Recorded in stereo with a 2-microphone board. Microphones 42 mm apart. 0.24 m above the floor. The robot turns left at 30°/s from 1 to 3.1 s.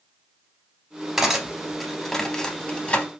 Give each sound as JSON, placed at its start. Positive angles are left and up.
{"t": 1.2, "sound": "cutlery clinking", "side_deg": -10, "distance_m": 0.7}